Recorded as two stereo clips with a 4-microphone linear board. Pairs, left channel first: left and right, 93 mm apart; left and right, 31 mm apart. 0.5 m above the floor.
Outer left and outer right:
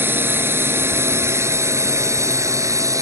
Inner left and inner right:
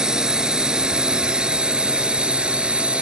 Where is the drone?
25° right (ahead or behind); by 3.0 s 35° right (ahead or behind).